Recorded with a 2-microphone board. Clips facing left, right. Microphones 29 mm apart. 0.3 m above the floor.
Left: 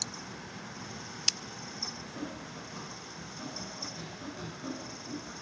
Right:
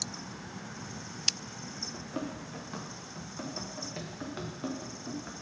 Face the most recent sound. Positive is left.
turn(degrees=-25)  # may be behind; listen again after turning